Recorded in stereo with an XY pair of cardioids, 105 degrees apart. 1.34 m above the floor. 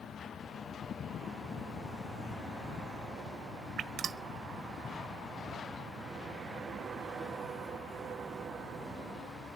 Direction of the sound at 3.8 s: 70° right.